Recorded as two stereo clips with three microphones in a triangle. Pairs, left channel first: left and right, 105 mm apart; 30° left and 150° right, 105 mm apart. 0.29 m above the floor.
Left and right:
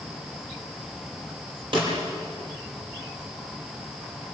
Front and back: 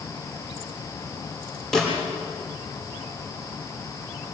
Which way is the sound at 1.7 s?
55° right.